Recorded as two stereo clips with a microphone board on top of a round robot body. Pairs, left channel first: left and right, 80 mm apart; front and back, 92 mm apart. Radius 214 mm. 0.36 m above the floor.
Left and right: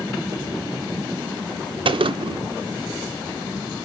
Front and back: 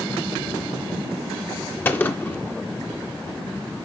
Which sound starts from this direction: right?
A gunshot, at 1.9 s.